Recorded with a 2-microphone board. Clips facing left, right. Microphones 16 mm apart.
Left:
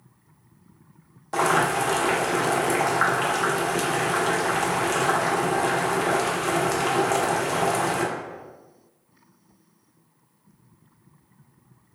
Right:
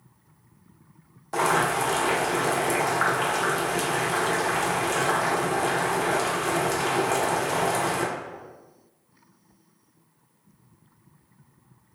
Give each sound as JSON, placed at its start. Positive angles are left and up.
{"t": 1.3, "sound": "boiling", "side_deg": 10, "distance_m": 0.6}